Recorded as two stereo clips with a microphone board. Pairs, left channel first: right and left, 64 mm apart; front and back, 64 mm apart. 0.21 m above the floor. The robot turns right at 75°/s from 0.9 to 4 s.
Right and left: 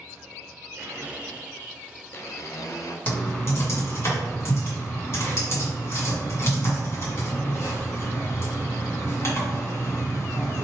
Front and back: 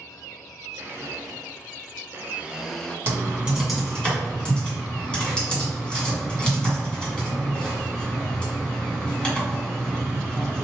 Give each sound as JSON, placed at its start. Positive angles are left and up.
{"t": 0.8, "sound": "a blender", "azimuth_deg": 135, "distance_m": 0.7}
{"t": 3.1, "sound": "typing on a keyboard", "azimuth_deg": -140, "distance_m": 2.0}